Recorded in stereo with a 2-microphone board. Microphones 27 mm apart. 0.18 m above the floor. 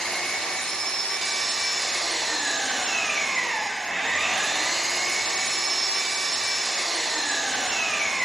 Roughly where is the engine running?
Left.